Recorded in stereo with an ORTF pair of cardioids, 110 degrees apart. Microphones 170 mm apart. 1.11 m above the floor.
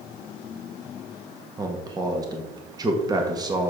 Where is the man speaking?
25° right, 1.9 m.